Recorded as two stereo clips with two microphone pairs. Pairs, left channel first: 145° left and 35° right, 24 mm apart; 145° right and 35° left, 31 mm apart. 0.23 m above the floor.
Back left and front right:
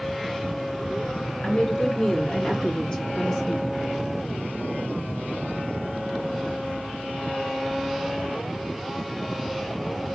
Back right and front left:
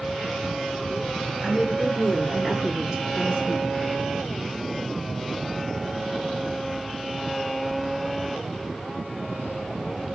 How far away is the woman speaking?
About 3 m.